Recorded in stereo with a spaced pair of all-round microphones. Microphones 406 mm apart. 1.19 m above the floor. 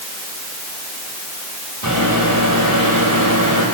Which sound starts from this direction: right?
A microwave, at 1.8 s.